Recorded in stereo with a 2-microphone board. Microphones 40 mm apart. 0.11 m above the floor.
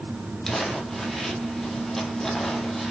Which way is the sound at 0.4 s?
10° left (ahead or behind).